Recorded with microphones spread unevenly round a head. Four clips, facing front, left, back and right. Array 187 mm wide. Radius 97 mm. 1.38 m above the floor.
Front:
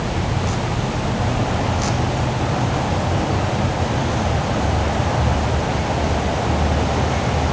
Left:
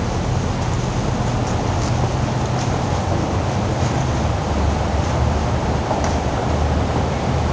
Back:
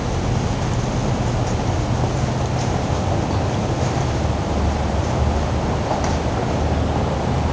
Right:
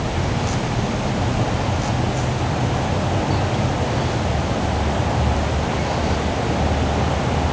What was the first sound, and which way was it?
Only background noise.